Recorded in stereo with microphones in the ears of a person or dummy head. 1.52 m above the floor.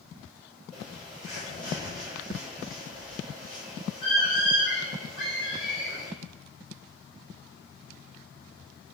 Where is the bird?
30° left (ahead or behind), 1.2 m.